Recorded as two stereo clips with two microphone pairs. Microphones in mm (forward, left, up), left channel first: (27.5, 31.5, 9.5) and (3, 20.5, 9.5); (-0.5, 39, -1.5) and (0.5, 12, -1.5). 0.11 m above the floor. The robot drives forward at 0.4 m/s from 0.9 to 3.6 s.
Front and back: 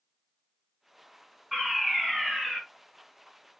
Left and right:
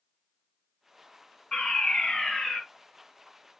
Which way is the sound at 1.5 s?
115° left.